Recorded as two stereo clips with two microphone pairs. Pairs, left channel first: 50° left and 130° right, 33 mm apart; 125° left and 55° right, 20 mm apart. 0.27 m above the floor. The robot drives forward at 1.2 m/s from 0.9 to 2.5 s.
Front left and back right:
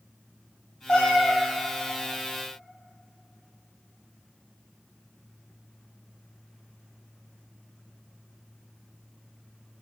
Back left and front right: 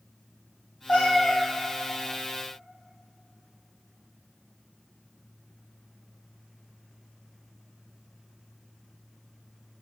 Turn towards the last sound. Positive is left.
turn(degrees=140)